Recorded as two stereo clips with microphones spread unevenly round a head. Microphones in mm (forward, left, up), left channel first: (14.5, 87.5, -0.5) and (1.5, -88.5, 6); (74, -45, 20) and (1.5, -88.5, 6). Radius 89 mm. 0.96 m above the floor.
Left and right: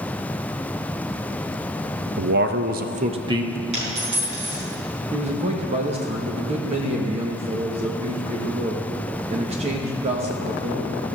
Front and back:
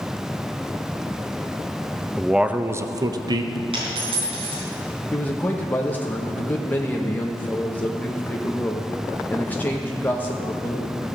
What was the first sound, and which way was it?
A man speaking, 65° right.